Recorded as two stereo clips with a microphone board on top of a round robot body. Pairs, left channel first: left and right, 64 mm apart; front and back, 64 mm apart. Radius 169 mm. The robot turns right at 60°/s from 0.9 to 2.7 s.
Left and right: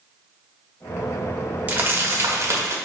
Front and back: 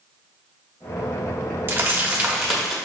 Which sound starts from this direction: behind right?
Crumpling, at 1.7 s.